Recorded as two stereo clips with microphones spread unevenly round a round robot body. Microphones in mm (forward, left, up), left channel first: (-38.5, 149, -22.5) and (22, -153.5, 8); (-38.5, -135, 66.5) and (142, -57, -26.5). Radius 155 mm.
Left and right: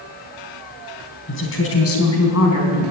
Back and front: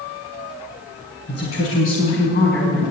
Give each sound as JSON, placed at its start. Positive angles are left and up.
{"t": 1.3, "sound": "a woman speaking", "azimuth_deg": 155, "distance_m": 3.5}